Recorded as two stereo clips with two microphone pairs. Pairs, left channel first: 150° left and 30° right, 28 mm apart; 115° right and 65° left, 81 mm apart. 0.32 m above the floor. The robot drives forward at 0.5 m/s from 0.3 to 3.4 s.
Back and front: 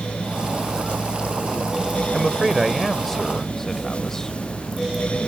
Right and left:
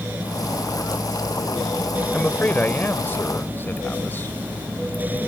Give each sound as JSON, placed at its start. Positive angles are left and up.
{"t": 2.1, "sound": "a man speaking", "azimuth_deg": -90}